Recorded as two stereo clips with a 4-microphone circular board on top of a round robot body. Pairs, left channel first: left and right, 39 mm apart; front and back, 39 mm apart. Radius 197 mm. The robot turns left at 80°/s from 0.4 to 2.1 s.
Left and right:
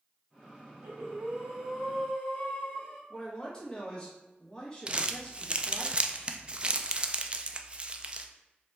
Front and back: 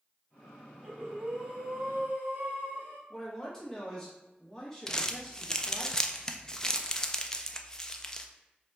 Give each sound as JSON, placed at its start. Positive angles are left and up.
{"t": 0.8, "sound": "breathing", "azimuth_deg": -110, "distance_m": 0.7}
{"t": 3.1, "sound": "a man speaking", "azimuth_deg": 60, "distance_m": 1.1}
{"t": 4.9, "sound": "crumpling", "azimuth_deg": -55, "distance_m": 0.6}